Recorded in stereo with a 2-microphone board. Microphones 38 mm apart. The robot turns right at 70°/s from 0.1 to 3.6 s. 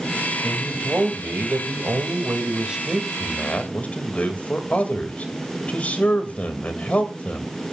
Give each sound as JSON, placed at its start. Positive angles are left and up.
{"t": 0.4, "sound": "a man speaking", "azimuth_deg": -175, "distance_m": 2.5}